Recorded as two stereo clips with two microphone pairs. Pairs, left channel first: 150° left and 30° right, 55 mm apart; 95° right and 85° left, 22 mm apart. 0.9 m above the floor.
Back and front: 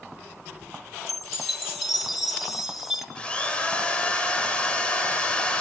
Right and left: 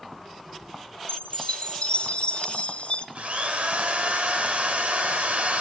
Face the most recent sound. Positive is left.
turn(degrees=80)